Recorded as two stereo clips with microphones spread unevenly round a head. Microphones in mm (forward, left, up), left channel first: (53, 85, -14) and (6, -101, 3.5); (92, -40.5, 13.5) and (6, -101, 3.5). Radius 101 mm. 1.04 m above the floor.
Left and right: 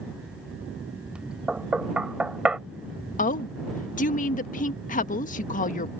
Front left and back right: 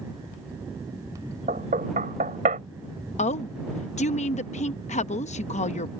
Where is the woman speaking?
25° left.